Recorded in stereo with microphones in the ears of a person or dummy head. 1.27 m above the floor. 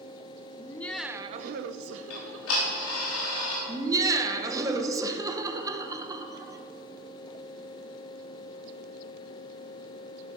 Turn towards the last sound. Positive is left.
turn(degrees=-15)  # may be behind; listen again after turning